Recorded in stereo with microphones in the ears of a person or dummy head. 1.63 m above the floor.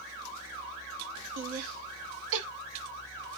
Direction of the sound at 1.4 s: 70° right (ahead or behind).